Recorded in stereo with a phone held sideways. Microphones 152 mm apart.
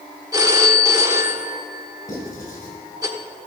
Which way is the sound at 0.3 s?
20° right (ahead or behind).